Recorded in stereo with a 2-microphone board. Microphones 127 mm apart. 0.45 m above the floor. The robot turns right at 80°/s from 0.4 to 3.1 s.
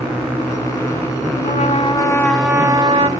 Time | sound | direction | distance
1.4 | a trumpet | 95° left | 2 m